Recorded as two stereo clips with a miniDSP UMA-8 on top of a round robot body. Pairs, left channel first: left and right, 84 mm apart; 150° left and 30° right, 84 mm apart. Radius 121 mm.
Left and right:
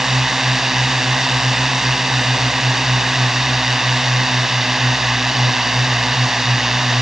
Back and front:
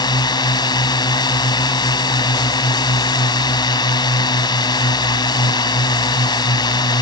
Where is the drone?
175° right.